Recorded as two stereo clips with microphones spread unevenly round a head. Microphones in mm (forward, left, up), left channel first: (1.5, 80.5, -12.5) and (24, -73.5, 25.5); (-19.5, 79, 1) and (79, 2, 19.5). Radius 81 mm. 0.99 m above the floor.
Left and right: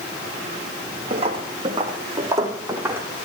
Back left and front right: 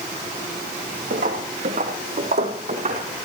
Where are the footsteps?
35° right, 3.5 m; by 3.1 s 10° right, 4.5 m.